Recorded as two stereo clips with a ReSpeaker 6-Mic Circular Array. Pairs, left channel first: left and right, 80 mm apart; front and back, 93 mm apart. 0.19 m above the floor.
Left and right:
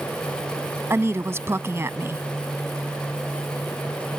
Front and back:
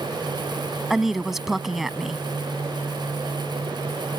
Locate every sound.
0.9 s a woman speaking: 95° right